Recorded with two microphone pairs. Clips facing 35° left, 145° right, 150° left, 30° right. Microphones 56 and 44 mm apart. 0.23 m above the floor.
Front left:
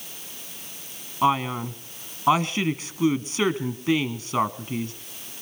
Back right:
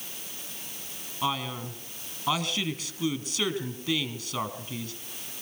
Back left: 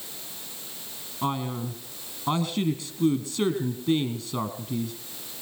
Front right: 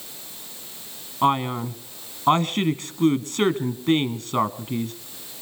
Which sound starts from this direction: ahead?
A man speaking, at 1.2 s.